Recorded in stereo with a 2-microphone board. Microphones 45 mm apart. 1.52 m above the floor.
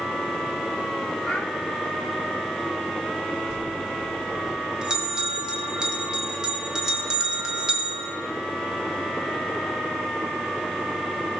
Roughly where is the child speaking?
Centre.